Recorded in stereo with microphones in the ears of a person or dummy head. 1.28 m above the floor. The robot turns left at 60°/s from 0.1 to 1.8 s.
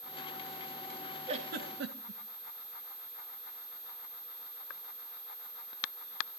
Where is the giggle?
30° right (ahead or behind), 2 m; by 2.2 s 60° right (ahead or behind), 2 m.